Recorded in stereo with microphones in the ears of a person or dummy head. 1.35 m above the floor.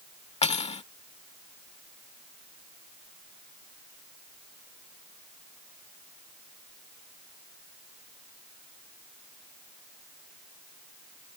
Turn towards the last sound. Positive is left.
turn(degrees=25)  # may be behind; listen again after turning